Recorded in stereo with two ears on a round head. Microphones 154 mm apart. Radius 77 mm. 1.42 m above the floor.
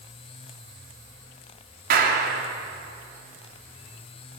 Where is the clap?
55° right (ahead or behind), 3.5 m.